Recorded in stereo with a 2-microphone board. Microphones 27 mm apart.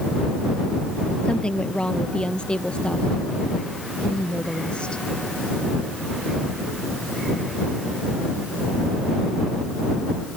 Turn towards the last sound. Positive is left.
turn(degrees=40)  # may be behind; listen again after turning